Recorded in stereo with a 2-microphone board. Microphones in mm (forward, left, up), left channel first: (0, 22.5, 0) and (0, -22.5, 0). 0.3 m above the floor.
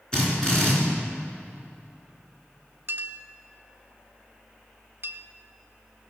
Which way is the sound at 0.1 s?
15° left (ahead or behind).